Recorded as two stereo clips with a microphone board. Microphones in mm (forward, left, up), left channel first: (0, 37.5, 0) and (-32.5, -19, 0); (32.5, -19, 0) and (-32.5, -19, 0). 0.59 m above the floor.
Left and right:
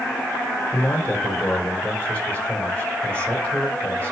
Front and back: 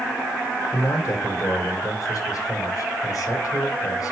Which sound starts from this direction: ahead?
A man speaking, at 0.7 s.